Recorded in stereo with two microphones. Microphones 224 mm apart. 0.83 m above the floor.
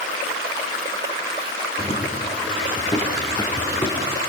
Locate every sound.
1.8 s running footsteps: 30° left (ahead or behind), 5 m; by 4.2 s 15° left (ahead or behind), 5.5 m